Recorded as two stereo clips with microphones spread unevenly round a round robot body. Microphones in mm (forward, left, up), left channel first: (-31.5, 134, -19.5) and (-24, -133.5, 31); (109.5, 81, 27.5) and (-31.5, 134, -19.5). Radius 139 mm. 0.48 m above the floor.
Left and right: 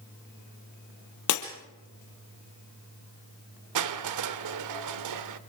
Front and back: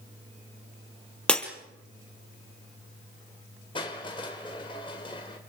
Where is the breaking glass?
60° left, 3 m.